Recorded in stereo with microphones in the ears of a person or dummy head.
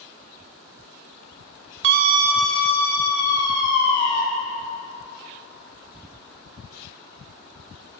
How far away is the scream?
About 0.5 m.